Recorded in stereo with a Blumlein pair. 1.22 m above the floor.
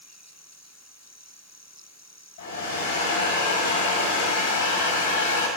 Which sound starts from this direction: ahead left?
A hair dryer, at 2.4 s.